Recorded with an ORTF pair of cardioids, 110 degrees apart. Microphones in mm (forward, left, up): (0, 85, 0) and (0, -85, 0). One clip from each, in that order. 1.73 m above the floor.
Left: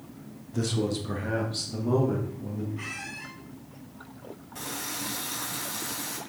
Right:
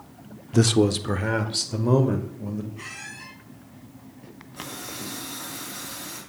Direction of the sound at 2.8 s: 5° right.